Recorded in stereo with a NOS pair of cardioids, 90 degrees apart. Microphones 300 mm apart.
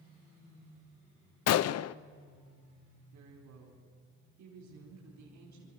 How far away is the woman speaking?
About 4.5 m.